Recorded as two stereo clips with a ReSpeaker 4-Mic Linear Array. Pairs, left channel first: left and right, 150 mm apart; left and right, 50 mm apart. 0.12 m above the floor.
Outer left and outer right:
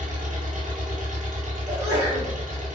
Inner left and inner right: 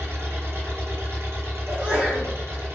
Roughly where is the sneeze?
Right.